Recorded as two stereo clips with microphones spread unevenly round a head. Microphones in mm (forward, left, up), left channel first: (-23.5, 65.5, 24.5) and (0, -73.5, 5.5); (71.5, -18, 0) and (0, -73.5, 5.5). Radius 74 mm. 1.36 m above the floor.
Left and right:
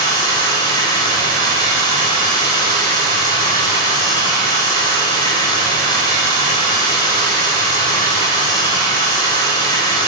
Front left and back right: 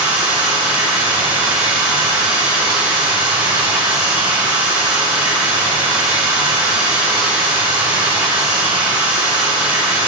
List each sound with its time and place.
0.0 s running water: 160° left, 3.5 m